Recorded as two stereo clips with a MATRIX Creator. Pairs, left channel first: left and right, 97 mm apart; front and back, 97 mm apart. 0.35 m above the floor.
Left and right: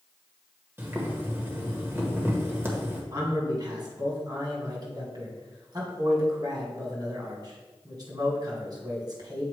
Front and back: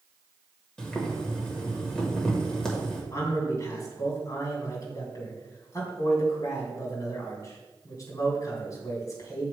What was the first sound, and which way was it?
Boiling, 75° right.